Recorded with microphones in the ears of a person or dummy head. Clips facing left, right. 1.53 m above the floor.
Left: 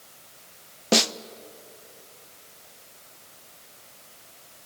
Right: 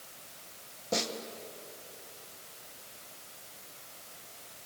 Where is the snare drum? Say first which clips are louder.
Left 10 dB; 80° left, 0.7 m.